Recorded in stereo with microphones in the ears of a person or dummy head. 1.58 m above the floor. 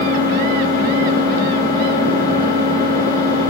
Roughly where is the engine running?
Centre.